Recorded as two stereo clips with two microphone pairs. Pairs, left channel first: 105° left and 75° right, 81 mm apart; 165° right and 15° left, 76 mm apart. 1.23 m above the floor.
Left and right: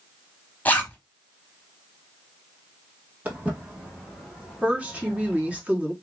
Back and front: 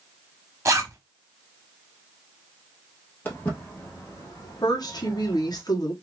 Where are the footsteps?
125° right, 1.4 m; by 5.6 s 170° right, 2 m.